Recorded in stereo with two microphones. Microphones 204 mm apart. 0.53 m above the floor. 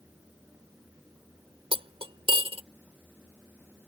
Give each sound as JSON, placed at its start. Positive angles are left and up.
{"t": 1.7, "sound": "cutlery clinking", "side_deg": -30}